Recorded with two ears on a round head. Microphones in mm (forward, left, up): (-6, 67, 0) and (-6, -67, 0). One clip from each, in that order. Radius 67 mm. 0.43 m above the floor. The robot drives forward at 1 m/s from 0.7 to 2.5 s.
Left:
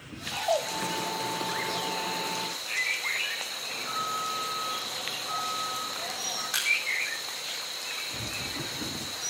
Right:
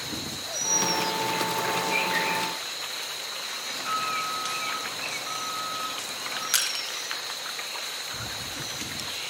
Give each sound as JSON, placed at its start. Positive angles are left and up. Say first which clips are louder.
{"t": 3.6, "sound": "an alarm", "louder": "right 6 dB", "side_deg": -40, "distance_m": 9.0}
{"t": 6.5, "sound": "crushing", "louder": "left 1 dB", "side_deg": -50, "distance_m": 4.0}